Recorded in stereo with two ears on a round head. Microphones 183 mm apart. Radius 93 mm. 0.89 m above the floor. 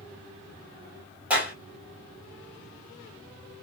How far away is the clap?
About 1.7 m.